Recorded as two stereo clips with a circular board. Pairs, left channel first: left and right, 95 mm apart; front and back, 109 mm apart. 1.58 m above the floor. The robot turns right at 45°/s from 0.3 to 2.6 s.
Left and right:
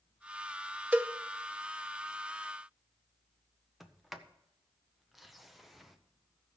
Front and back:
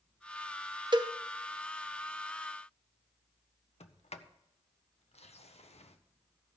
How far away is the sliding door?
About 0.8 m.